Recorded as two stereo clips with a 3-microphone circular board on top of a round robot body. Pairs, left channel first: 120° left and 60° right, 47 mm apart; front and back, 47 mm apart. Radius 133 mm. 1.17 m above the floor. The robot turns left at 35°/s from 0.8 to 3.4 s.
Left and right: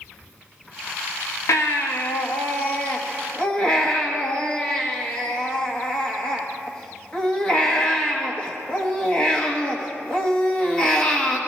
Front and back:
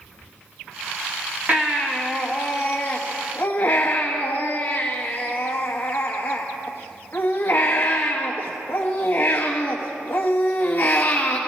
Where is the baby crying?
120° left, 1.1 m; by 11.4 s 50° left, 1.1 m.